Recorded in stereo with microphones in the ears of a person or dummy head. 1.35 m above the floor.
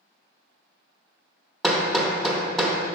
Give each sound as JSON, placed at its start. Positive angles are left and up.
{"t": 1.6, "sound": "hammering", "side_deg": 5, "distance_m": 1.0}